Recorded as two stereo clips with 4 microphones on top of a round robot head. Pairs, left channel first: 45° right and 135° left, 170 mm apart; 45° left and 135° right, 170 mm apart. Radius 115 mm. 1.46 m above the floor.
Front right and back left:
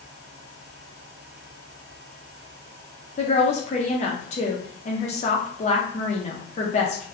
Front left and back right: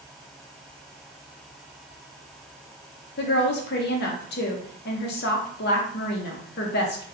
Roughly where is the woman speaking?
Ahead.